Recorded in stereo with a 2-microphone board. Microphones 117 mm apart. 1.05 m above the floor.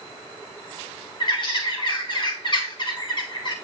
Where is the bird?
45° left (ahead or behind), 1.4 m.